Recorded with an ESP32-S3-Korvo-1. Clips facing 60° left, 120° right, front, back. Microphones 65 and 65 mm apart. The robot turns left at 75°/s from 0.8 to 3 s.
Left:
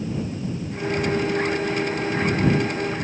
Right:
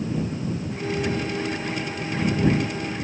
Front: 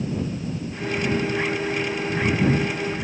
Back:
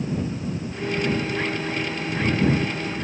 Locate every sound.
Only background noise.